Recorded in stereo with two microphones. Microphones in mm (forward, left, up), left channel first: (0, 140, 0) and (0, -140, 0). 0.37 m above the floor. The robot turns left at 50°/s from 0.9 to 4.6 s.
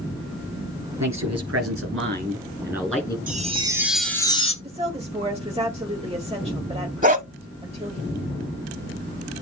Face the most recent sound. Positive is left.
turn(degrees=-30)  # may be behind; listen again after turning